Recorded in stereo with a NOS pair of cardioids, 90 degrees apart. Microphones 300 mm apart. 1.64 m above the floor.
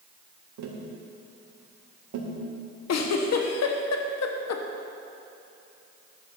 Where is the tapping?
70° right, 2.5 m.